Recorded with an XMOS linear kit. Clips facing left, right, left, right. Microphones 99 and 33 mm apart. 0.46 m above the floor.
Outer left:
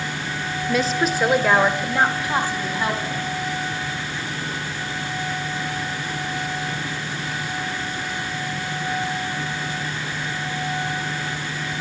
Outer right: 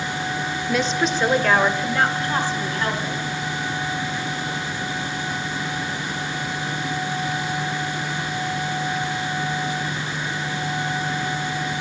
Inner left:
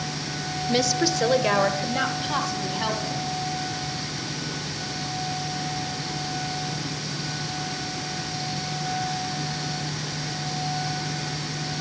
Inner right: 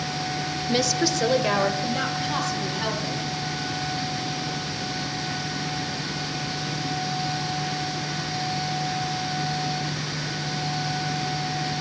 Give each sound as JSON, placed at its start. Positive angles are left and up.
{"t": 0.7, "sound": "a woman speaking", "side_deg": 0, "distance_m": 0.7}